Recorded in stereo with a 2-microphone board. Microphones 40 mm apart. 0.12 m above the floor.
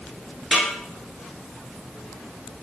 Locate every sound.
0.5 s a snare drum: 25° left (ahead or behind), 1.6 m